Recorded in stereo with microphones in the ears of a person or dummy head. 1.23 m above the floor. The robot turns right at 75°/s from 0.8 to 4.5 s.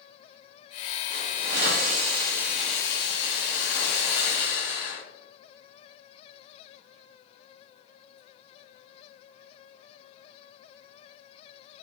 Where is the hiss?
110° right, 1.1 m; by 5.0 s 145° left, 1.1 m.